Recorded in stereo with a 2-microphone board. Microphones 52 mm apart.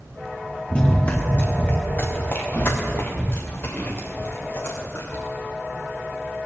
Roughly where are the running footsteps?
Left.